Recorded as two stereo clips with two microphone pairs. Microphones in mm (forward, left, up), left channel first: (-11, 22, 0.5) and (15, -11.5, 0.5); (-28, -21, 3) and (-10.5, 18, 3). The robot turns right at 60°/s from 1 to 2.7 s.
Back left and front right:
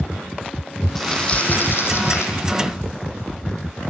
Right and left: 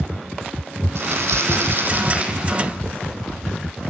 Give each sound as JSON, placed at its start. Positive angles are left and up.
{"t": 0.9, "sound": "crumpling", "azimuth_deg": 50, "distance_m": 7.5}